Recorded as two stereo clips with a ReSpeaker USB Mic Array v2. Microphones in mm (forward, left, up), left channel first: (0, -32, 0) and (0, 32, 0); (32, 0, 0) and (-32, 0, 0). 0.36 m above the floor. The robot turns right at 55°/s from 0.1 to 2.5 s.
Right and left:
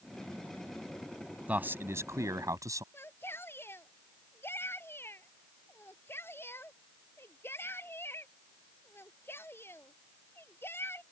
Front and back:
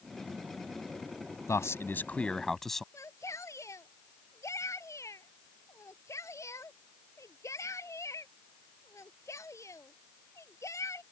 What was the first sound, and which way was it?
A man speaking, 30° left.